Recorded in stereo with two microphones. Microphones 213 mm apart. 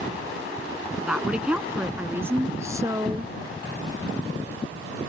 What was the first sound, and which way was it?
A woman speaking, centre (ahead or behind).